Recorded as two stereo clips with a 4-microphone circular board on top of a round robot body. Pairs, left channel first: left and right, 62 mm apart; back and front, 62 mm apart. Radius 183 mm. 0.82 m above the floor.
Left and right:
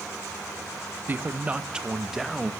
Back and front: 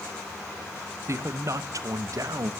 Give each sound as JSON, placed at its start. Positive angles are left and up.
{"t": 1.1, "sound": "a man speaking", "azimuth_deg": -35, "distance_m": 1.1}